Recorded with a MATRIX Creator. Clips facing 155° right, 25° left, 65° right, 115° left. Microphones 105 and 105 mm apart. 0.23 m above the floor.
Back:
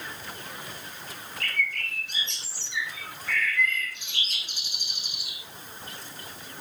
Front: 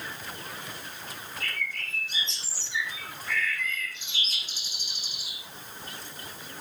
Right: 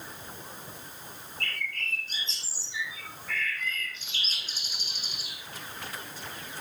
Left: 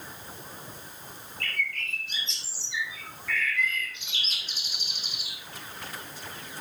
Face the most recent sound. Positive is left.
turn(degrees=-125)